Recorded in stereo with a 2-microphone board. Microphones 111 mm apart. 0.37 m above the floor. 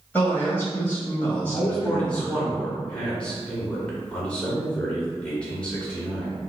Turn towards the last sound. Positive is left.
turn(degrees=10)  # may be behind; listen again after turning